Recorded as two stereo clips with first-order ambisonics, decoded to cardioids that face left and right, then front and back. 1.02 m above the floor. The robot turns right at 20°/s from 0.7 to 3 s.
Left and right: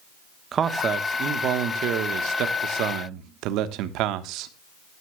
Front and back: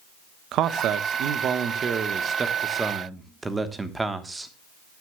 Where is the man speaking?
150° right, 1.2 m; by 4.5 s 100° right, 1.2 m.